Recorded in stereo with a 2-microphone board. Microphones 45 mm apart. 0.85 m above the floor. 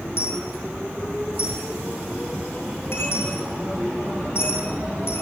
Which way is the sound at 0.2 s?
60° left (ahead or behind).